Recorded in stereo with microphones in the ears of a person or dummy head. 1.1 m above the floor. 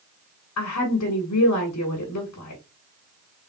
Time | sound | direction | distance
0.6 | a woman speaking | 85° left | 1.7 m